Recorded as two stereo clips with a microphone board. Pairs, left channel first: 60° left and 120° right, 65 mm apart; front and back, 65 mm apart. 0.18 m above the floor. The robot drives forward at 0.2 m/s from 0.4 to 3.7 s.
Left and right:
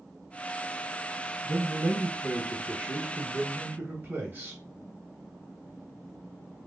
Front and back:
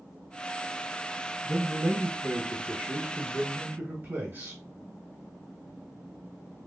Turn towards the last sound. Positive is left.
turn(degrees=-155)